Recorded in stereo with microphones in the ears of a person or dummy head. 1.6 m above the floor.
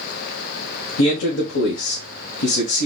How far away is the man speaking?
About 0.9 m.